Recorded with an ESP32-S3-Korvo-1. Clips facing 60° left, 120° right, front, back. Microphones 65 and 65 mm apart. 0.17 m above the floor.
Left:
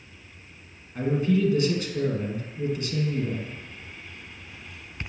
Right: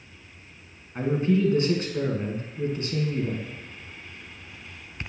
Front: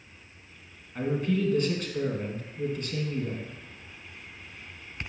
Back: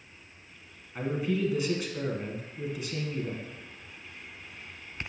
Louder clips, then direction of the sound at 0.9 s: Even, front 2 dB; 100° right.